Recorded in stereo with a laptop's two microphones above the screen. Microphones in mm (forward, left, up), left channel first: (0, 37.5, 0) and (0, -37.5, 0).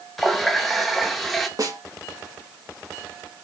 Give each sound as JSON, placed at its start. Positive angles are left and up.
{"t": 0.2, "sound": "a running tap", "side_deg": 0, "distance_m": 0.5}
{"t": 1.6, "sound": "a snare drum", "side_deg": -50, "distance_m": 1.2}